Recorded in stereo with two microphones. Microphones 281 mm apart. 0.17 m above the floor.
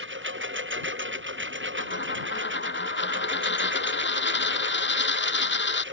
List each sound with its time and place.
0.0 s a lawn mower: 45° right (ahead or behind); by 5.9 s 40° right (ahead or behind)
1.8 s a dropped coin: 40° left (ahead or behind)